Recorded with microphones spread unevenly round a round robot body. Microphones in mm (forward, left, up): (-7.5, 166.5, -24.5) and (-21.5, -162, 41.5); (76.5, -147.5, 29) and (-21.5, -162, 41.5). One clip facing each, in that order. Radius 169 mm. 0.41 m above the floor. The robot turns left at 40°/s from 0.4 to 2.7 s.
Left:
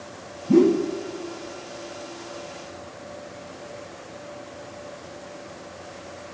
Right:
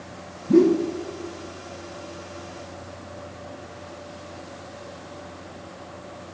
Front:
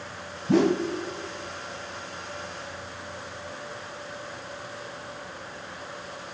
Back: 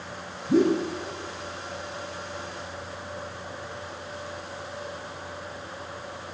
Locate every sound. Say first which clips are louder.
0.5 s a whoosh: even, even; straight ahead, 1.0 m; by 0.8 s 15° right, 1.0 m